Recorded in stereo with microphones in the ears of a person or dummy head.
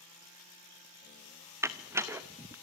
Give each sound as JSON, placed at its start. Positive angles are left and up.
{"t": 1.6, "sound": "a door slam", "side_deg": -20, "distance_m": 0.9}